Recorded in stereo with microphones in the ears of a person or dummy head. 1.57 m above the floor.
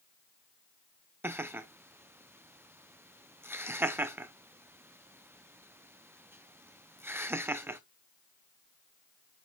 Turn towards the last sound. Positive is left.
turn(degrees=-15)  # may be behind; listen again after turning